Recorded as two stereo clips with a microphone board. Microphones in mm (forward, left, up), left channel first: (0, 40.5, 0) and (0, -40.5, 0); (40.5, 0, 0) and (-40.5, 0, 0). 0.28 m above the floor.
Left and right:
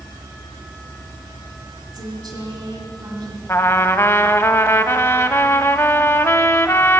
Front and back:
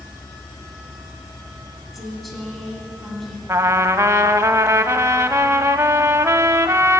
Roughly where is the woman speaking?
Right.